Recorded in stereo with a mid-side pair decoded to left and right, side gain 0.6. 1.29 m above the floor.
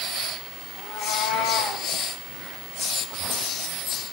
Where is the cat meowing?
70° left, 4.5 m.